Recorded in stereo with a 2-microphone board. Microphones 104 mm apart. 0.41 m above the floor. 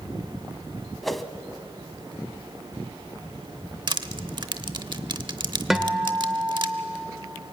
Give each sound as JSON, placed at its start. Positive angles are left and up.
{"t": 1.0, "sound": "a whoosh", "side_deg": 0, "distance_m": 0.9}
{"t": 3.9, "sound": "crushing", "side_deg": -50, "distance_m": 0.8}
{"t": 5.7, "sound": "a guitar", "side_deg": -5, "distance_m": 1.4}